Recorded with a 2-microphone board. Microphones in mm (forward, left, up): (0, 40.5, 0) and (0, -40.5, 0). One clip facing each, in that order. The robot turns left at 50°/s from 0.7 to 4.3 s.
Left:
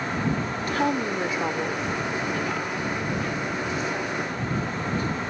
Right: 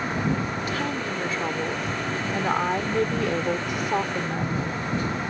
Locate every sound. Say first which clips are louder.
0.7 s a woman speaking: left 3 dB; 45° left; by 4.7 s 135° right